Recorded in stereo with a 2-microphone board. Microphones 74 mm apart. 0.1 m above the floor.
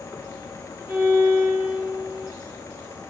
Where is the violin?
35° right (ahead or behind), 3 m.